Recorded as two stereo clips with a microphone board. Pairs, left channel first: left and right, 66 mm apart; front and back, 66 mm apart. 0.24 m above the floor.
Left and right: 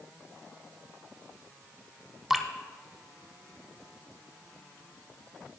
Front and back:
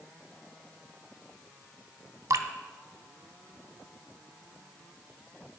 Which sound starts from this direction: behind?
Dripping, at 2.3 s.